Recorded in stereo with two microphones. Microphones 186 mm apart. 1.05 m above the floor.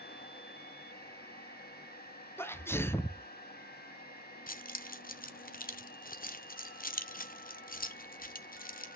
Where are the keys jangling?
50° left (ahead or behind), 0.6 m.